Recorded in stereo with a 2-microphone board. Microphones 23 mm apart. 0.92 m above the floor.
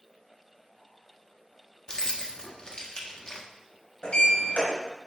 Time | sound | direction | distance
1.9 | keys jangling | 35° left (ahead or behind) | 1.2 m
4.0 | a sliding door | 60° left (ahead or behind) | 4 m